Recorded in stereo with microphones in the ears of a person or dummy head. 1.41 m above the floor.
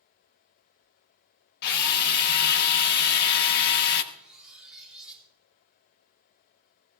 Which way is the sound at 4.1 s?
Centre (ahead or behind).